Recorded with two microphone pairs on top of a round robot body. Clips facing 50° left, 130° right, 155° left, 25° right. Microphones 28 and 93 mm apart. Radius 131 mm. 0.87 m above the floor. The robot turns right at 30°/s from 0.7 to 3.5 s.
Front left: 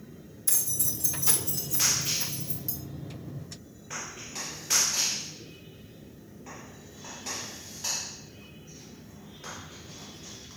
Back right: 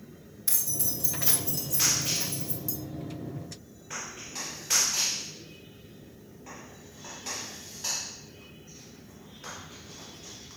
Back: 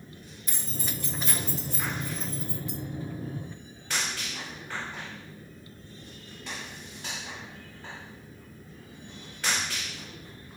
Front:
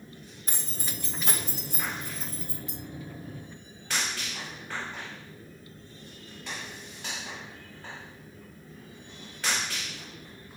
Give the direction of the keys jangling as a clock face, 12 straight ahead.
2 o'clock.